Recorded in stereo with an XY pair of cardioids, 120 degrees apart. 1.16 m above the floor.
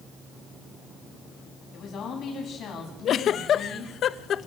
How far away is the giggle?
About 1.0 m.